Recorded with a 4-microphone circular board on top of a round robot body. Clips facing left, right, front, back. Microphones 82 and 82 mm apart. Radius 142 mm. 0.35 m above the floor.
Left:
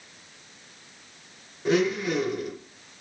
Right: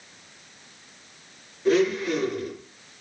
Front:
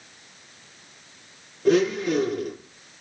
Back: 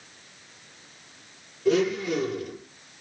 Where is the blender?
20° left, 4 m.